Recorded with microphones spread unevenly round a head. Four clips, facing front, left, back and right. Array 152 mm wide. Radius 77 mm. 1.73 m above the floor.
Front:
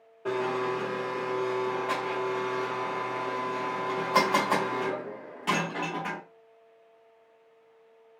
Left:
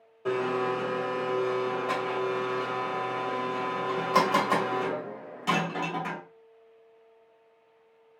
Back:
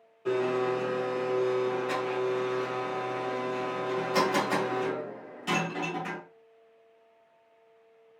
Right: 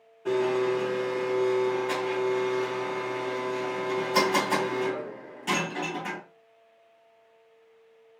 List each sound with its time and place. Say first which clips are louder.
0.2 s a blender: right 3 dB, back 2 dB; 30° left, 2 m